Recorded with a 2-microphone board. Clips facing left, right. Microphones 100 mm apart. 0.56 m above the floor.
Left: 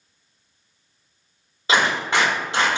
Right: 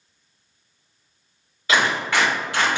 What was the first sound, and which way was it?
A clap, 25° left (ahead or behind).